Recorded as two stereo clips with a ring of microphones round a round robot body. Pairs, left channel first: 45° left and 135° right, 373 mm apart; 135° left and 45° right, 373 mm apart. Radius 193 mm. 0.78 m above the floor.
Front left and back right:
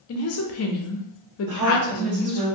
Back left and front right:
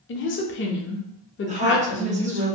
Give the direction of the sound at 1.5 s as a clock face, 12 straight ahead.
4 o'clock.